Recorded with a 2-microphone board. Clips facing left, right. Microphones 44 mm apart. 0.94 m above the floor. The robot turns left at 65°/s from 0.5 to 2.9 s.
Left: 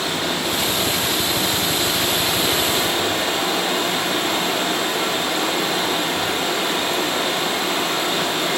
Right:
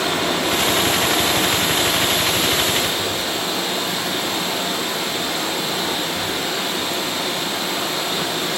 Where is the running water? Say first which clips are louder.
Right 3 dB; 70° right, 1.0 m; by 8.6 s 135° left, 1.0 m.